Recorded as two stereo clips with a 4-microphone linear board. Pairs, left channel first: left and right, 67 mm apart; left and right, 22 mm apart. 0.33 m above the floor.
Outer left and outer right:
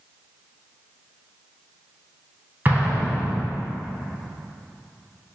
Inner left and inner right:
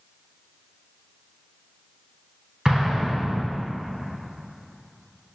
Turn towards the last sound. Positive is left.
turn(degrees=-30)  # may be behind; listen again after turning